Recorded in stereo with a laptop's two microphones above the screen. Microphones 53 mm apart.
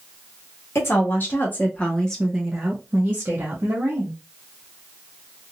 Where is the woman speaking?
50° left (ahead or behind), 1.3 m; by 4.1 s 55° right (ahead or behind), 1.4 m.